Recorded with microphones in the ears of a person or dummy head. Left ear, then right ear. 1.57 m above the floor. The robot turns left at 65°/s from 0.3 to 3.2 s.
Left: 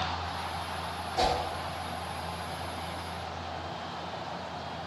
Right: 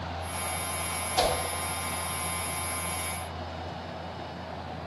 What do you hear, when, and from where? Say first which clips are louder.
1.2 s a whoosh: right 1 dB; 45° right (ahead or behind), 0.5 m; by 1.3 s 55° right (ahead or behind), 0.5 m